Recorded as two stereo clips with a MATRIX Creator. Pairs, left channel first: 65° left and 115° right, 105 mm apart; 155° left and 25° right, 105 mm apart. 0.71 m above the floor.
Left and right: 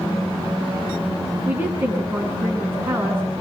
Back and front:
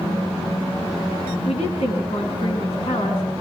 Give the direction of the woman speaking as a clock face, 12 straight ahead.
6 o'clock.